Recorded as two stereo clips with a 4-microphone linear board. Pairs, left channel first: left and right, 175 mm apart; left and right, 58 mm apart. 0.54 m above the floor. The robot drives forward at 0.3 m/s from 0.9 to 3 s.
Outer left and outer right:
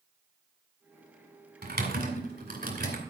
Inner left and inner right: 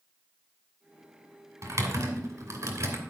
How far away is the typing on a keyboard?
About 2.5 m.